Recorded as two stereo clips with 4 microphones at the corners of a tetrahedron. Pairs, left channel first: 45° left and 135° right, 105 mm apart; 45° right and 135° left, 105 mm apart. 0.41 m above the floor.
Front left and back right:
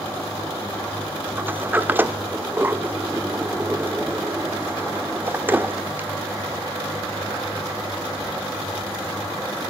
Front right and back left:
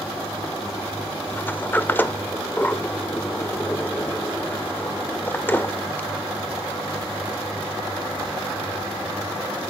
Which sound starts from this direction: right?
A sliding door, at 1.4 s.